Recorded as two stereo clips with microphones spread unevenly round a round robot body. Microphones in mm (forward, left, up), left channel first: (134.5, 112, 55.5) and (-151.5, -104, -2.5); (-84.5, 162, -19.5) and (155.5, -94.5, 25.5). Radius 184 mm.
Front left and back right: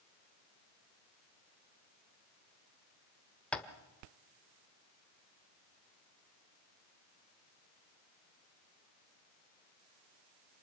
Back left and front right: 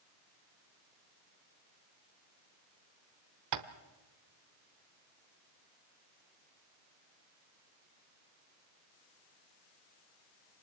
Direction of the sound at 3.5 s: 60° right.